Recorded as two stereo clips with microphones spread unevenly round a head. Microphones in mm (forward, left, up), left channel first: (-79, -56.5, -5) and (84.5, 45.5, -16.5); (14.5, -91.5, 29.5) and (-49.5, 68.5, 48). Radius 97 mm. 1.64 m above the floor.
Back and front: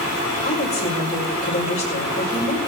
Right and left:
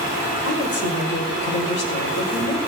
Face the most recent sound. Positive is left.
turn(degrees=-90)